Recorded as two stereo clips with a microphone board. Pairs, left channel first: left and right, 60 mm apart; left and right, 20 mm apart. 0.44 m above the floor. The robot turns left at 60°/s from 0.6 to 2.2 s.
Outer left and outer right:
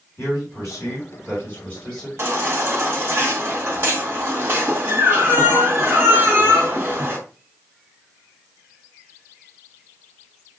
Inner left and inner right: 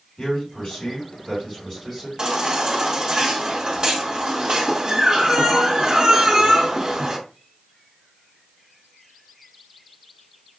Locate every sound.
0.2 s a man speaking: 100° left, 2.5 m; by 2.1 s 10° left, 2.5 m
2.2 s a baby crying: 40° right (ahead or behind), 1.8 m